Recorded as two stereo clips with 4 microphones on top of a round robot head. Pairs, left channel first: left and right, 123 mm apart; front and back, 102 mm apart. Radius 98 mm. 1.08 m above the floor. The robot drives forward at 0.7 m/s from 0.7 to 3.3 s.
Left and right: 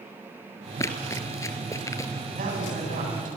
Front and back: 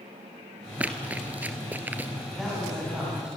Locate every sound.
0.8 s running footsteps: 125° left, 1.1 m
2.4 s a woman speaking: 95° right, 10 m; by 3.4 s 100° right, 10 m